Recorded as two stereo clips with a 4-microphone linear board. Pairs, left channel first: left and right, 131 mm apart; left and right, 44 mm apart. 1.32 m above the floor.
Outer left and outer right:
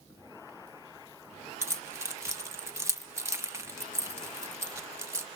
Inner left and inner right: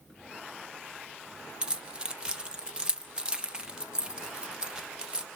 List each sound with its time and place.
1.6 s keys jangling: 20° right (ahead or behind), 0.6 m